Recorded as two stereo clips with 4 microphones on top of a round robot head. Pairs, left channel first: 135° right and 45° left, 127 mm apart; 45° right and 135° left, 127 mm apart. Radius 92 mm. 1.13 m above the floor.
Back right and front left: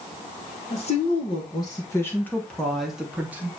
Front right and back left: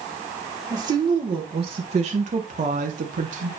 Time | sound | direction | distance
0.7 | a woman speaking | 170° right | 1.7 m